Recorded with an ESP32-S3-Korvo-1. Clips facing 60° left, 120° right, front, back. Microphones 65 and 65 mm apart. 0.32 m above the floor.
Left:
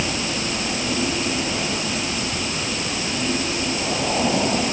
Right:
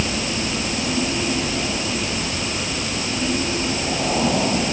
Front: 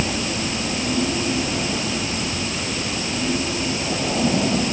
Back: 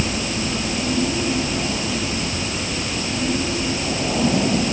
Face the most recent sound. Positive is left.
No sound to turn to.